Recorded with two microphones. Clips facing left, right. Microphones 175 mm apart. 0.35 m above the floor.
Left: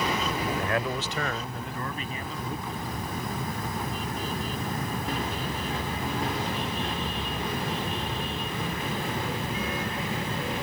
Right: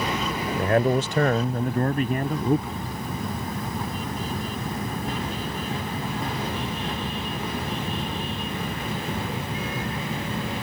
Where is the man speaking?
35° right (ahead or behind); by 2.8 s 60° right (ahead or behind).